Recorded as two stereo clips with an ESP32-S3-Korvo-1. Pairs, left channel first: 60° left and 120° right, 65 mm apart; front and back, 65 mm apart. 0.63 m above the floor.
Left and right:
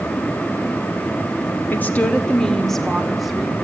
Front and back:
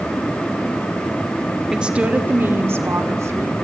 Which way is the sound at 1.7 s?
100° left.